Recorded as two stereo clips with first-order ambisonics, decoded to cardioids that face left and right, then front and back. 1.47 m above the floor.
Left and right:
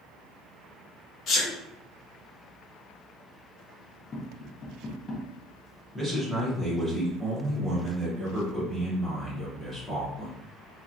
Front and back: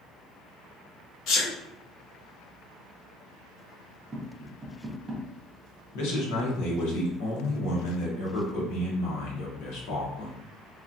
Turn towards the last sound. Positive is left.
turn(degrees=5)